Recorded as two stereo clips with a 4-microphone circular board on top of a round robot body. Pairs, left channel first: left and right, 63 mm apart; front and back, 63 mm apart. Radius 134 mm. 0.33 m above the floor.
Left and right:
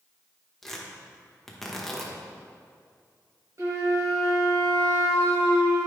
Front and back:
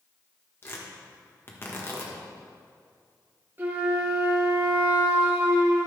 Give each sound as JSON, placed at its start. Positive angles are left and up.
{"t": 0.6, "sound": "tearing paper", "azimuth_deg": 10, "distance_m": 1.8}
{"t": 3.6, "sound": "a flute", "azimuth_deg": -125, "distance_m": 1.9}